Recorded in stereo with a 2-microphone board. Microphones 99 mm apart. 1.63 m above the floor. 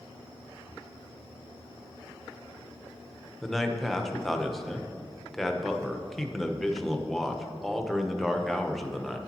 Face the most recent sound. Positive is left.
turn(degrees=0)  # may be behind; listen again after turning